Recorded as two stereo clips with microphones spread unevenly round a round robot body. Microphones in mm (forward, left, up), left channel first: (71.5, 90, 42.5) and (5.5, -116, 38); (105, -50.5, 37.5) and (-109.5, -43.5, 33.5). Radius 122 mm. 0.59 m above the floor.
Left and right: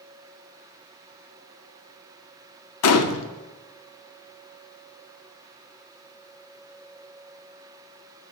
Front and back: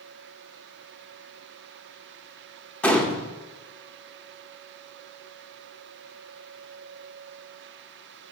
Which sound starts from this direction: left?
A gunshot, at 2.8 s.